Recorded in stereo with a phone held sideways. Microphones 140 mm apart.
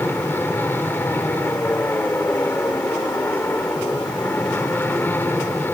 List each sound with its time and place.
0.0 s an aircraft: 15° left (ahead or behind)